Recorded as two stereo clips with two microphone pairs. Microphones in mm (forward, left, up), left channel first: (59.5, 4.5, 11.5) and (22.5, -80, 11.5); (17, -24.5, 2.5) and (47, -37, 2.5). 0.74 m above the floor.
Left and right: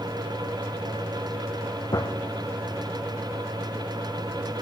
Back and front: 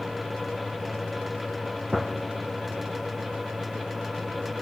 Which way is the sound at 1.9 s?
60° left.